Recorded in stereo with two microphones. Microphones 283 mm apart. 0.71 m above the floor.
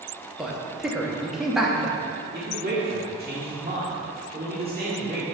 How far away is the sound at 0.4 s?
About 1.1 m.